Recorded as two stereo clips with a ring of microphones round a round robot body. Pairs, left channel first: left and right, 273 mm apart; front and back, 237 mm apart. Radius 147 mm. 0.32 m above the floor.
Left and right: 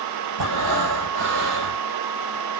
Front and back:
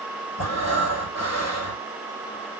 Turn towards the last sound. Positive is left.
turn(degrees=-65)